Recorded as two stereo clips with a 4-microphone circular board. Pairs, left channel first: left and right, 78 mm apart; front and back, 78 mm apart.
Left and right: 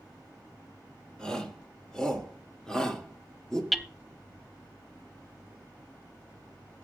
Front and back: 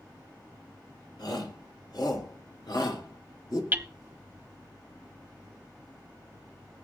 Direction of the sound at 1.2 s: 10° left.